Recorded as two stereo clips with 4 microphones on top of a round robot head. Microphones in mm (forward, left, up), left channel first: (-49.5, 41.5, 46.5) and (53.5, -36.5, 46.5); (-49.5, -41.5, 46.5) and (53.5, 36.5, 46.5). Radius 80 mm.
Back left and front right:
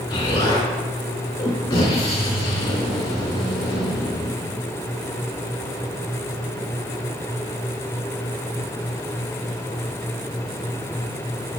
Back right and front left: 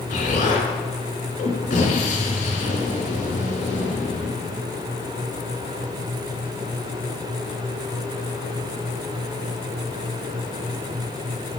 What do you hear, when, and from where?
0.1 s an explosion: 165° right, 2.5 m